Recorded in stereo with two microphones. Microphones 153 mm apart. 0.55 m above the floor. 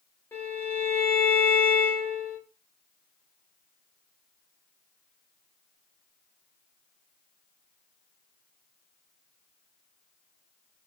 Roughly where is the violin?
Centre.